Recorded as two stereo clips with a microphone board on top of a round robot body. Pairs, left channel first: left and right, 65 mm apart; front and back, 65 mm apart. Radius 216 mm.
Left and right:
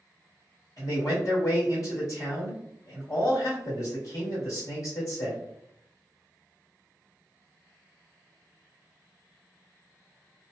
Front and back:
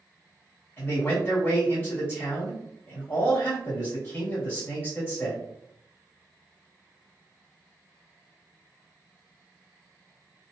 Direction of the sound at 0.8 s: 50° left.